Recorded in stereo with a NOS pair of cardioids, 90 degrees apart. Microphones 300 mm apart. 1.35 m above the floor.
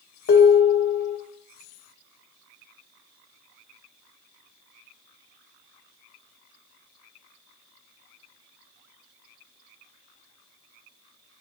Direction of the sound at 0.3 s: 50° left.